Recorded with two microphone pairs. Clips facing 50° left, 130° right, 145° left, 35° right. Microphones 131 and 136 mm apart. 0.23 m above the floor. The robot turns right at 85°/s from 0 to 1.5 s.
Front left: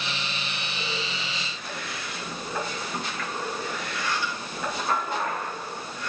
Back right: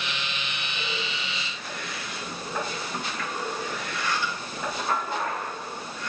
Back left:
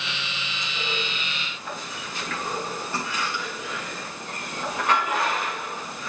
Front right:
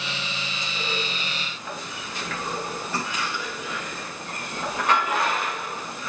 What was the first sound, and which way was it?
Only background noise.